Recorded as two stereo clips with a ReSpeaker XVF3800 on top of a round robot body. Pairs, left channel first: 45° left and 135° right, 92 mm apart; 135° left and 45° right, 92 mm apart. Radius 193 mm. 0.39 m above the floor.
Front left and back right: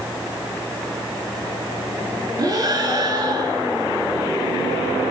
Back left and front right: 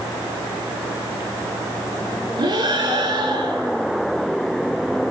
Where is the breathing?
90° right, 7.5 m.